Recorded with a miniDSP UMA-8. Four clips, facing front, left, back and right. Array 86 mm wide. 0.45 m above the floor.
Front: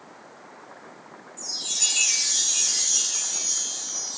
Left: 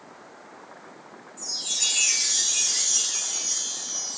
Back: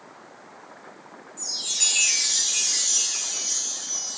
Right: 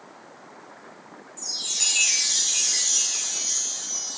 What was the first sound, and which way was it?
A chime, 140° right.